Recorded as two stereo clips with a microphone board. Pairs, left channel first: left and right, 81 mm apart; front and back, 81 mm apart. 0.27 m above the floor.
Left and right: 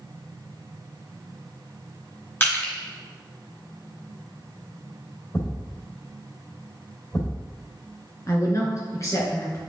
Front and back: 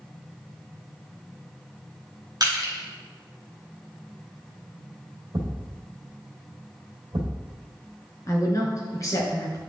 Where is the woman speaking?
45° left, 2.5 m.